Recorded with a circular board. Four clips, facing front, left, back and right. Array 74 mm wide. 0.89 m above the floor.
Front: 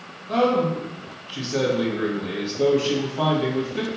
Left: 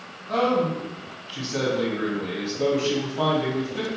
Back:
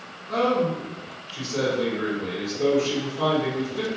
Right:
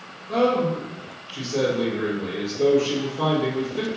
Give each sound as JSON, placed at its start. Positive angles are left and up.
{"t": 0.3, "sound": "a man speaking", "azimuth_deg": 25, "distance_m": 1.7}